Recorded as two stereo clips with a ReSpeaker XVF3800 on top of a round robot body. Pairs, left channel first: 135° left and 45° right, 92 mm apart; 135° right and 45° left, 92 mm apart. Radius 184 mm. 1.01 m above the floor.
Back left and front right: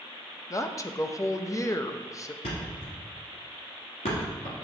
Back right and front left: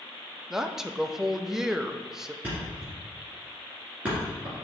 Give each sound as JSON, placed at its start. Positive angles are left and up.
{"t": 0.5, "sound": "a woman speaking", "azimuth_deg": 125, "distance_m": 0.7}
{"t": 2.4, "sound": "a thud", "azimuth_deg": 120, "distance_m": 2.0}